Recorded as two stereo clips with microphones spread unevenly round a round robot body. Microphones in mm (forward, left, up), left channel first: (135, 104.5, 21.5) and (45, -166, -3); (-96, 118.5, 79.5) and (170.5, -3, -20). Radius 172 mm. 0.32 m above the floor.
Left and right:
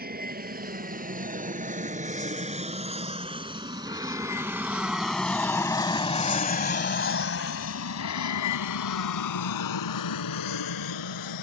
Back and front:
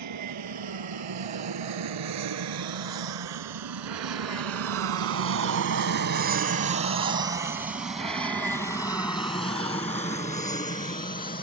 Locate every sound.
0.0 s an aircraft: 50° right; by 11.4 s 90° left